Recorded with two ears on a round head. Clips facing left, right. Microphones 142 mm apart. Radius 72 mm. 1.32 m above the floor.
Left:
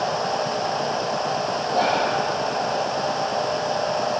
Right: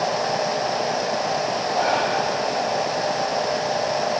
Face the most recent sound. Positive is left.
turn(degrees=40)  # may be behind; listen again after turning